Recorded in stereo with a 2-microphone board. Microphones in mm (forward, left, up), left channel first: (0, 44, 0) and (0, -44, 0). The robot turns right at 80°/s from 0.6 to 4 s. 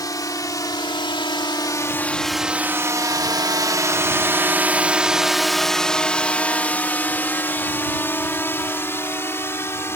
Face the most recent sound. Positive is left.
turn(degrees=30)  # may be behind; listen again after turning